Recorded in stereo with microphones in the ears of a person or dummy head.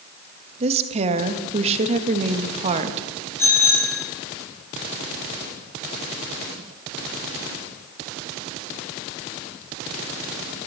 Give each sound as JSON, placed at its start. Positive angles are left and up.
{"t": 0.6, "sound": "a woman speaking", "side_deg": -40, "distance_m": 1.3}
{"t": 3.4, "sound": "a bicycle bell", "side_deg": 15, "distance_m": 5.5}